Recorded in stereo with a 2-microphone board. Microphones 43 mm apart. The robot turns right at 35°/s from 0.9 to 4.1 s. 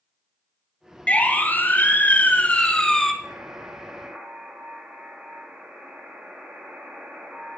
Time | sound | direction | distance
1.1 | a siren | 25° left (ahead or behind) | 2.5 m
3.2 | a buzzer | 50° right | 6 m